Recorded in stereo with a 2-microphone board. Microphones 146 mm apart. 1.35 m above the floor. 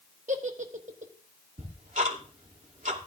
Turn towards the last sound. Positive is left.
turn(degrees=-60)  # may be behind; listen again after turning